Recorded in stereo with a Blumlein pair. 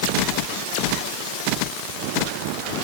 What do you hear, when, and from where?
Only background noise.